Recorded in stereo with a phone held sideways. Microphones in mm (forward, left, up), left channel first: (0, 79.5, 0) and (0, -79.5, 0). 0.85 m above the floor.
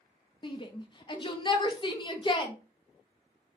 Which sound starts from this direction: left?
A shout, at 0.4 s.